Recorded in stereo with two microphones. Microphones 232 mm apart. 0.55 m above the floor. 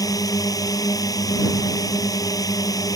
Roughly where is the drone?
Centre.